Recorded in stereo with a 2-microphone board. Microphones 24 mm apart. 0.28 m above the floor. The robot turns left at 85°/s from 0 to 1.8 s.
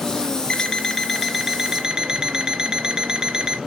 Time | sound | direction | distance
0.5 | an alarm clock | 55° left | 0.7 m